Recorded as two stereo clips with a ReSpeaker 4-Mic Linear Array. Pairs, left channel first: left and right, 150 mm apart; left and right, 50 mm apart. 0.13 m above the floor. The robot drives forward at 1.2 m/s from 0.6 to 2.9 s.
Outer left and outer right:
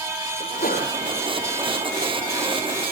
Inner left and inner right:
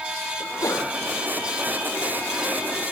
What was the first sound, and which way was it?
A sneeze, 65° left (ahead or behind).